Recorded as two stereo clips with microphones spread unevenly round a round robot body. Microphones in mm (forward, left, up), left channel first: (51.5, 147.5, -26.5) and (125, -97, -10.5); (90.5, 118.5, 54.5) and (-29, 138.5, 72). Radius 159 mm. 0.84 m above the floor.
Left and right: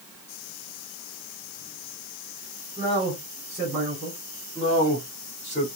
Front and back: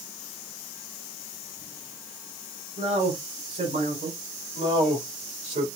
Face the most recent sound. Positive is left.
turn(degrees=-155)